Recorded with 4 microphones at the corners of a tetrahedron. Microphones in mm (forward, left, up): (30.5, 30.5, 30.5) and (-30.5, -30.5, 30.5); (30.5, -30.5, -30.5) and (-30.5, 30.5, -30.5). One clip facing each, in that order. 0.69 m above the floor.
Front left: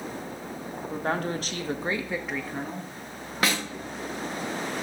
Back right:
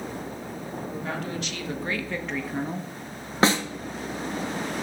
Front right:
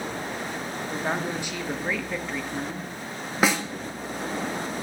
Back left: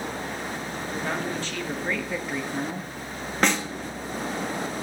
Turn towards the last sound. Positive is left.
turn(degrees=-125)